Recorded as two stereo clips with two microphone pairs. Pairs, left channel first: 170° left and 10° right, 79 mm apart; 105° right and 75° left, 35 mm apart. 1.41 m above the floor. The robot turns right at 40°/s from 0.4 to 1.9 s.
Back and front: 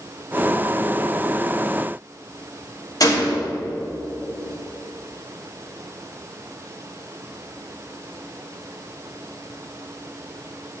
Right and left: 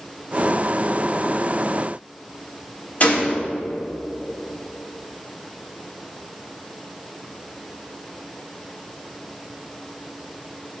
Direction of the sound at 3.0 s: 150° right.